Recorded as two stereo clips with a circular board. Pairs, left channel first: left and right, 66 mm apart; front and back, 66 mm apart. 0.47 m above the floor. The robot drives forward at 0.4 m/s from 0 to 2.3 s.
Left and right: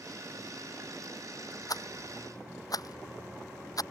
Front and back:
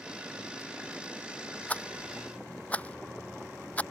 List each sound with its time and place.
1.7 s a rattle: 65° left; by 3.8 s 70° left